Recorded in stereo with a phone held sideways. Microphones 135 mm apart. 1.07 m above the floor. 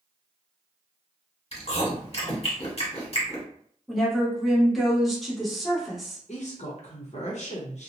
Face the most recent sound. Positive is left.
turn(degrees=60)  # may be behind; listen again after turning